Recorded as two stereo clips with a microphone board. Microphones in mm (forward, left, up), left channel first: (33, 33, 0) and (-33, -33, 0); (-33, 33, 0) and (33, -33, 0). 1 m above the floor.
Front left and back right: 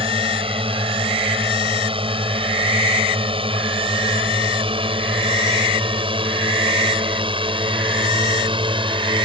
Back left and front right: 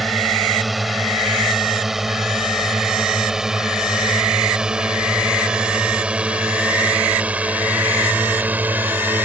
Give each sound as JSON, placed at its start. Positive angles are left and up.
{"t": 0.0, "sound": "a drone", "azimuth_deg": -135}